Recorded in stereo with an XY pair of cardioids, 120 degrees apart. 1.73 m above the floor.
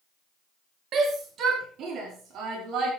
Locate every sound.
0.9 s a shout: 60° right, 4.5 m; by 2.9 s 70° right, 6 m